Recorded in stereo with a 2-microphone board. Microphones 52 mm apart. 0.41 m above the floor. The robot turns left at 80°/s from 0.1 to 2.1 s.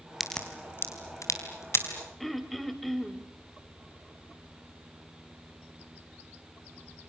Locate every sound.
0.2 s a crack: centre (ahead or behind), 4 m; by 1.9 s 45° left (ahead or behind), 4 m
2.2 s throat clearing: 5° left (ahead or behind), 2.5 m